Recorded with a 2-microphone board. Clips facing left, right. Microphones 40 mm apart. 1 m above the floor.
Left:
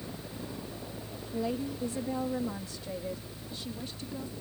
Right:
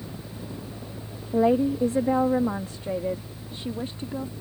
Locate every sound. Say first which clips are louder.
1.3 s a woman speaking: right 13 dB; 60° right (ahead or behind); by 4.3 s 35° right (ahead or behind)